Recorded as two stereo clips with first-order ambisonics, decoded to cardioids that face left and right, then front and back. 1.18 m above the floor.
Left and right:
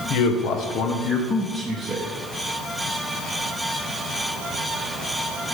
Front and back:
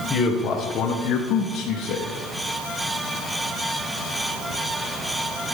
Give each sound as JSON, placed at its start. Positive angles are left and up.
{"t": 0.1, "sound": "a man speaking", "azimuth_deg": 70, "distance_m": 0.9}